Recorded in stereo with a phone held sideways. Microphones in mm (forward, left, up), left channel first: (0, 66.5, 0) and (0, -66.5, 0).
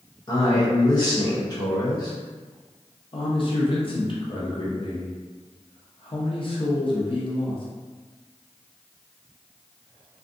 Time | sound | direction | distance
0.3 | a man speaking | 35° left (ahead or behind) | 0.6 m
3.1 | a man speaking | 45° left (ahead or behind) | 0.7 m